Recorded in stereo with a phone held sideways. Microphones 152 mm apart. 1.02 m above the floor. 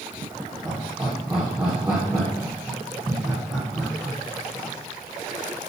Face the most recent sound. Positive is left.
turn(degrees=-15)  # may be behind; listen again after turning